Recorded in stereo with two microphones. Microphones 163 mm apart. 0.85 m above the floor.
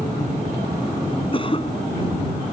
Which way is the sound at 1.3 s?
35° left (ahead or behind).